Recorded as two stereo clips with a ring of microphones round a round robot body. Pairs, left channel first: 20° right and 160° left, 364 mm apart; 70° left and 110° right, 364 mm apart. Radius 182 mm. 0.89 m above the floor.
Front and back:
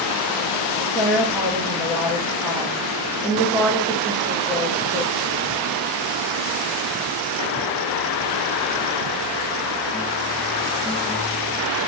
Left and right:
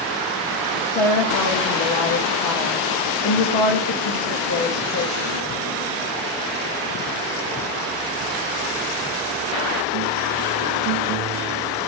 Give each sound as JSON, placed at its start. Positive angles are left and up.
{"t": 0.9, "sound": "a woman speaking", "azimuth_deg": 65, "distance_m": 1.0}